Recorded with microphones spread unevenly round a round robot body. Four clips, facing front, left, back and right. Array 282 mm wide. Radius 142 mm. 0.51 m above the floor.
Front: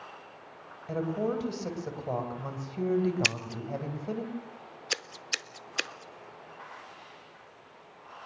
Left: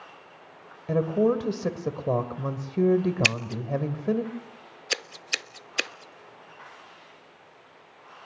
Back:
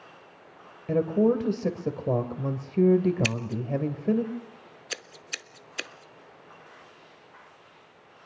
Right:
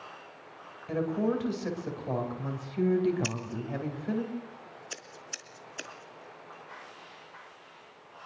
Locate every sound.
0.9 s a woman speaking: 145° left, 2.5 m
3.2 s scissors: 70° left, 0.7 m